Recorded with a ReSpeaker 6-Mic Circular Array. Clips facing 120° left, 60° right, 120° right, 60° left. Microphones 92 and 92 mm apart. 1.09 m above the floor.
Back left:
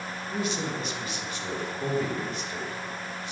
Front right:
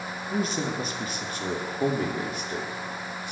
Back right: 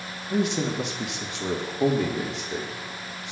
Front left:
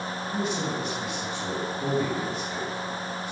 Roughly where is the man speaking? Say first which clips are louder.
Front right 3 dB, back right 5 dB; right.